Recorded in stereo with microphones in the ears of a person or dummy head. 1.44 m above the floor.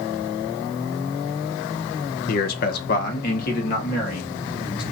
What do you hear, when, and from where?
2.3 s a man speaking: 55° left (ahead or behind), 0.5 m